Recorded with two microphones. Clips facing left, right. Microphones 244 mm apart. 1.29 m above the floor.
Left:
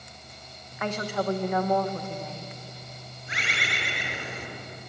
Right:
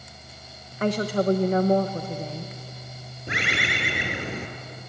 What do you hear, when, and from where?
0.8 s a woman speaking: 35° right (ahead or behind), 1.1 m
3.3 s a bird: 70° right (ahead or behind), 3.5 m